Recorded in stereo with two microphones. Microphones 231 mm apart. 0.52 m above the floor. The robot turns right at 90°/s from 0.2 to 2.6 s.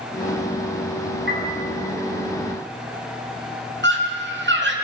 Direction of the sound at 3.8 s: 50° right (ahead or behind).